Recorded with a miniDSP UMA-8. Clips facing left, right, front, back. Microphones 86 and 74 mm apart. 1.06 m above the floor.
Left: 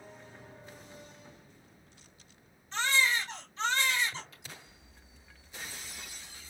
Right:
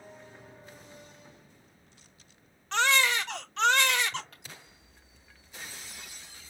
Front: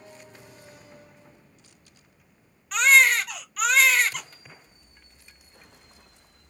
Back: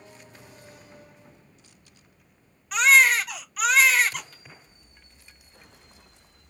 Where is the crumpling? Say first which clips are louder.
Right 2 dB, even; 50° right, 3 m.